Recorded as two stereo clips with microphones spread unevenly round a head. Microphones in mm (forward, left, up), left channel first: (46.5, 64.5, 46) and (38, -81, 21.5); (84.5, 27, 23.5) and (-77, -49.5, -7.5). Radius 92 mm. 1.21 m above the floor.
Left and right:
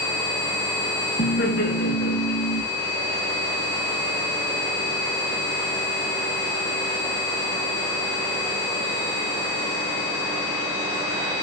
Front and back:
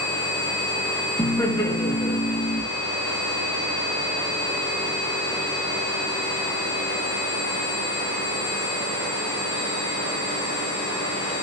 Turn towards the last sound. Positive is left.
turn(degrees=100)